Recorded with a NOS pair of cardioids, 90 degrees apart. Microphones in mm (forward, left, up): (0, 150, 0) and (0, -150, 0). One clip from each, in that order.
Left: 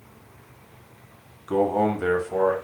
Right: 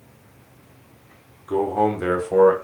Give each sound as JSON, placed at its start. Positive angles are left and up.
{"t": 1.5, "sound": "a man speaking", "azimuth_deg": 15, "distance_m": 0.8}